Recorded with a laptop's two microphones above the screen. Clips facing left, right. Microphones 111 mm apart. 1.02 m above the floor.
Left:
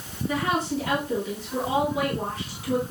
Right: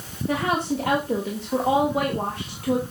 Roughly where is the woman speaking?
Right.